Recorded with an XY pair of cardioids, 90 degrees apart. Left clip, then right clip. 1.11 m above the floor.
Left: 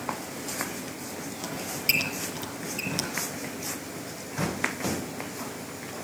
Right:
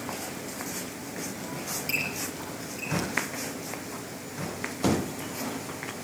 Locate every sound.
1.4 s a squeak: 70° left, 4 m